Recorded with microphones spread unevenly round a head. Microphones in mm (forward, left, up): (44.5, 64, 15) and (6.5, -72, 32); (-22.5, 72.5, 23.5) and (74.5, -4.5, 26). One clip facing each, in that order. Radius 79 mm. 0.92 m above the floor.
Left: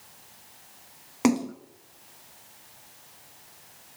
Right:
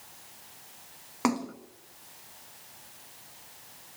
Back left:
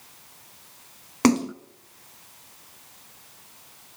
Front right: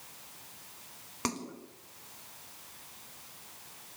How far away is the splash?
About 0.9 m.